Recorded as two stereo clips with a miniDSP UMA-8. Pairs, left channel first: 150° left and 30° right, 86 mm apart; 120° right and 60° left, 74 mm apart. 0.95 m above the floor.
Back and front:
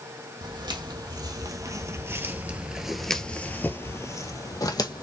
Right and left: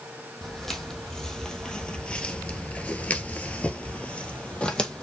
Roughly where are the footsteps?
Ahead right.